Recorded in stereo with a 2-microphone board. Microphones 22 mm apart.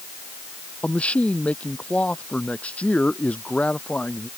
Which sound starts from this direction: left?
A man speaking, at 0.8 s.